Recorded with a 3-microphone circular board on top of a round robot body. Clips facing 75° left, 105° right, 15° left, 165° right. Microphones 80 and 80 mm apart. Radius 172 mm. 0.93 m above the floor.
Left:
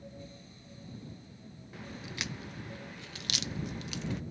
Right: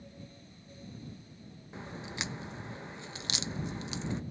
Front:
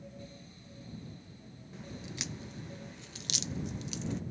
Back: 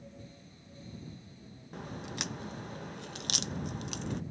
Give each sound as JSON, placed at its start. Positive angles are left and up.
{"t": 1.7, "sound": "a crack", "azimuth_deg": -165}